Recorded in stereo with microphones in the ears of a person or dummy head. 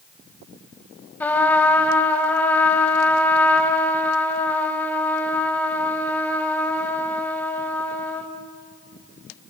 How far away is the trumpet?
About 2.0 m.